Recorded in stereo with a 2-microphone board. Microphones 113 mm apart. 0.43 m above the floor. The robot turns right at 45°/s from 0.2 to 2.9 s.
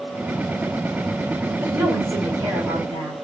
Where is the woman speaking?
145° right, 1.8 m; by 3.1 s 85° right, 1.8 m.